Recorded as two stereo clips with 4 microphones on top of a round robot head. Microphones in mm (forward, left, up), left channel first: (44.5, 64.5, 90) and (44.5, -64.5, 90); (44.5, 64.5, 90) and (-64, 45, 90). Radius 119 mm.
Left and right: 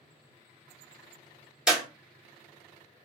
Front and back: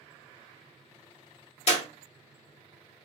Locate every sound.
1.7 s a clap: 5° right, 1.7 m